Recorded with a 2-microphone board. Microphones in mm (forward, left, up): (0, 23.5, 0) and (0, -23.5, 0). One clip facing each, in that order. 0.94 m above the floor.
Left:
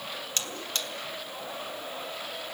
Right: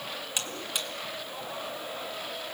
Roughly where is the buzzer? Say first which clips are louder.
Even; centre.